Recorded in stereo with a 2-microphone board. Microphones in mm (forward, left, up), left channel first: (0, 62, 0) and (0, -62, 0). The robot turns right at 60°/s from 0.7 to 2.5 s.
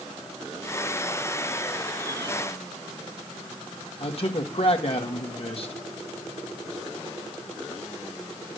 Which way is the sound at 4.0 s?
50° left (ahead or behind).